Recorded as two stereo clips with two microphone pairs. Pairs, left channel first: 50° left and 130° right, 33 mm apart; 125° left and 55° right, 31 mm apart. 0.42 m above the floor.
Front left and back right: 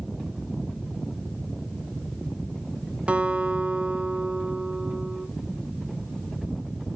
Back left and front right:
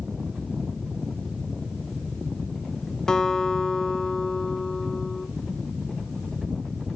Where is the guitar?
175° right, 1.8 m.